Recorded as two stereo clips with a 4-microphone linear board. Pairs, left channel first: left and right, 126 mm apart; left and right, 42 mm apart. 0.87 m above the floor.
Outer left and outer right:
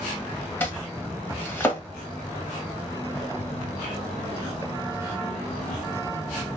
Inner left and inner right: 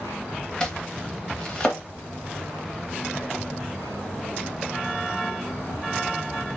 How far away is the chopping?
About 0.9 m.